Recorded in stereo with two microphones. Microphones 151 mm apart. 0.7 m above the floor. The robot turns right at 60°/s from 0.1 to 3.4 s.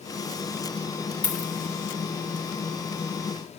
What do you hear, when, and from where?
1.2 s a dropped coin: 55° left (ahead or behind), 0.5 m; by 1.5 s 60° left (ahead or behind), 0.5 m